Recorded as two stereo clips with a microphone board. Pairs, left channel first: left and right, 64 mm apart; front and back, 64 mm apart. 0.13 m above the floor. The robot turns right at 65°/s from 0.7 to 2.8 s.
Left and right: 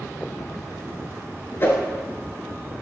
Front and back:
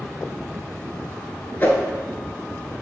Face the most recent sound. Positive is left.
turn(degrees=125)